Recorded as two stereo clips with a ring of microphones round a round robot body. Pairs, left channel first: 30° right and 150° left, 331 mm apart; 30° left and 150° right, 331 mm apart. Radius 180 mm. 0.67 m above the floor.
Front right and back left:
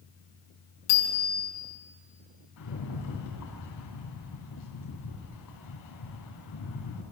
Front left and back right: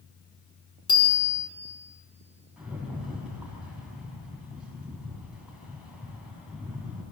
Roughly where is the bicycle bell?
Ahead right.